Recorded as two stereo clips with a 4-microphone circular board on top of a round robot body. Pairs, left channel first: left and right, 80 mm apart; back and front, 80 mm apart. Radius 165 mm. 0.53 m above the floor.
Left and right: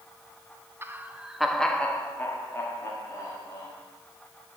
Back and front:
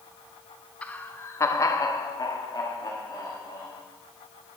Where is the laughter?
120° right, 1.4 m; by 3.7 s 135° left, 3.5 m.